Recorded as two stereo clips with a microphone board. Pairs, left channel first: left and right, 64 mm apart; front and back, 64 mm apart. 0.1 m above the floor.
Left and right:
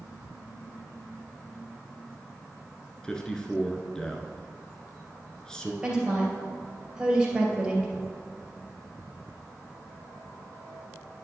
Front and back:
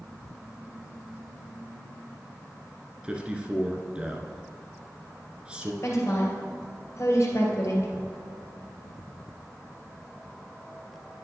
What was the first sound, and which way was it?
A man speaking, 145° left.